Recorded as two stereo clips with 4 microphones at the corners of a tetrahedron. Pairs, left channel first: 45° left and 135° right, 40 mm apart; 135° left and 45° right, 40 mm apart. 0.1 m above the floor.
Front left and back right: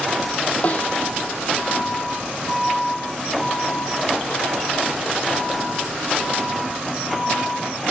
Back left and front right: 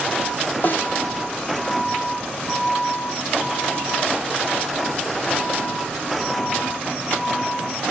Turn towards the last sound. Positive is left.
turn(degrees=95)